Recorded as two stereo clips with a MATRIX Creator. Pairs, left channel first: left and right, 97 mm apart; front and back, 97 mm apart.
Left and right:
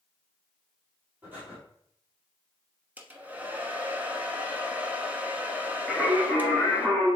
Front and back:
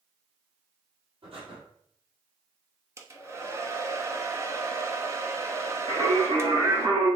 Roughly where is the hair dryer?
Behind right.